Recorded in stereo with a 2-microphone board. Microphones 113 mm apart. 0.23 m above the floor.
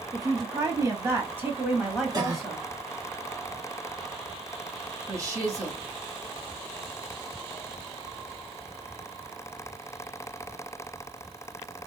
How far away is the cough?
About 1.8 m.